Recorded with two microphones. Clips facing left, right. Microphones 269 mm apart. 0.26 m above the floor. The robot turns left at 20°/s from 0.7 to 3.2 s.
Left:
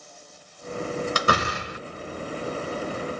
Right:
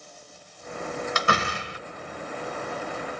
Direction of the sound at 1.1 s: 40° left (ahead or behind).